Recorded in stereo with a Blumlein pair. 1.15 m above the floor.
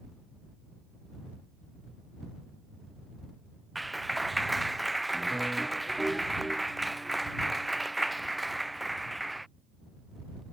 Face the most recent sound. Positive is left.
turn(degrees=-5)